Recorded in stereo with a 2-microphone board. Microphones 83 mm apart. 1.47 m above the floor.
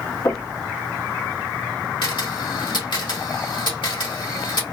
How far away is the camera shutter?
About 2.5 m.